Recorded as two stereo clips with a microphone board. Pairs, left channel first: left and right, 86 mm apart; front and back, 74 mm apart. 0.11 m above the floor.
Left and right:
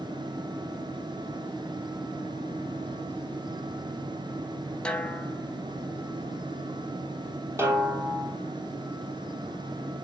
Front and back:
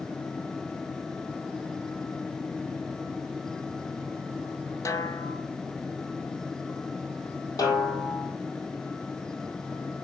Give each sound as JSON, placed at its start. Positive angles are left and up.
{"t": 4.8, "sound": "a snare drum", "azimuth_deg": 15, "distance_m": 0.7}
{"t": 7.6, "sound": "a snare drum", "azimuth_deg": -30, "distance_m": 3.0}